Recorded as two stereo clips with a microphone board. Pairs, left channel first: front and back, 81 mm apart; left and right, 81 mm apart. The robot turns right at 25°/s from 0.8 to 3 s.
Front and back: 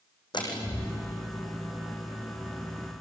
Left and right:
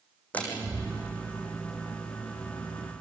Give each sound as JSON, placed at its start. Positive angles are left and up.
{"t": 0.3, "sound": "a door slam", "azimuth_deg": 20, "distance_m": 5.5}